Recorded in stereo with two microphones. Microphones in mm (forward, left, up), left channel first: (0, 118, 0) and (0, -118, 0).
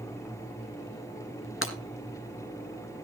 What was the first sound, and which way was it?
Breaking glass, 60° left (ahead or behind).